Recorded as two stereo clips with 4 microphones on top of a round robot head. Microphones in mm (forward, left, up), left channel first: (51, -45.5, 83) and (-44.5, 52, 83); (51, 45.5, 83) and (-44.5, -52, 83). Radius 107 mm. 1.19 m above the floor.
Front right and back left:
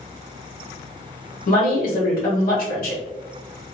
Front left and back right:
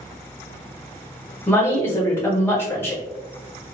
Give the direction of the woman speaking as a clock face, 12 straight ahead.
1 o'clock.